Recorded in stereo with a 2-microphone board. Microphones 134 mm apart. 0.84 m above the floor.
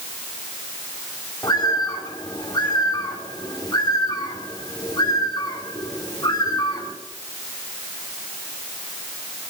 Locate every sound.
1.4 s a bird: 30° left (ahead or behind), 2 m